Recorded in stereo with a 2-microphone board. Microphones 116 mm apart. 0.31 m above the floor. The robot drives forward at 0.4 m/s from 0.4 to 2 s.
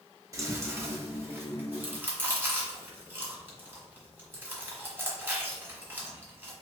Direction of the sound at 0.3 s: 30° right (ahead or behind).